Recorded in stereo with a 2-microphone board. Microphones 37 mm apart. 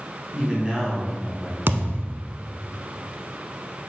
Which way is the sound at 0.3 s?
25° right (ahead or behind).